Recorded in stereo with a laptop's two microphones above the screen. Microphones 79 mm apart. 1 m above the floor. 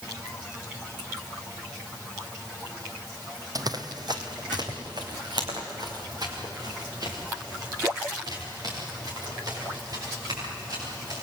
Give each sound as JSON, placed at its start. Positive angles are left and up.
{"t": 3.5, "sound": "running footsteps", "side_deg": -50, "distance_m": 1.6}